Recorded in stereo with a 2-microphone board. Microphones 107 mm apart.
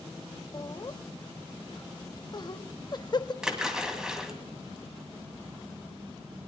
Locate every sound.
0.5 s laughter: 40° left (ahead or behind), 0.6 m
3.4 s a splash: 5° right (ahead or behind), 2 m